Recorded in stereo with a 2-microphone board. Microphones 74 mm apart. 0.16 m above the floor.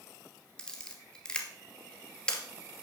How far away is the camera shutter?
About 1.9 m.